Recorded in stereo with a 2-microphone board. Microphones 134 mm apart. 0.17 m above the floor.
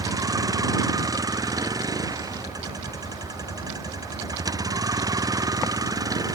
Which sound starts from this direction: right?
A vehicle, at 0.0 s.